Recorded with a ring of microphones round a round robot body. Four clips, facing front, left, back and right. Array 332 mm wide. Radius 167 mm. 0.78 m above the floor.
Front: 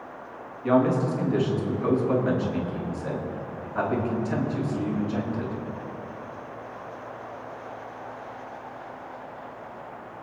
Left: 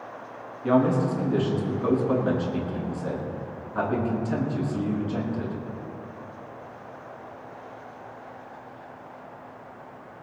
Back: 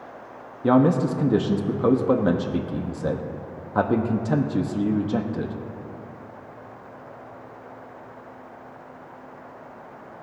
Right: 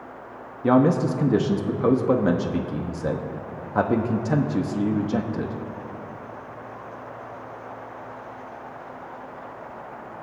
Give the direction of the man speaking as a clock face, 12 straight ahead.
5 o'clock.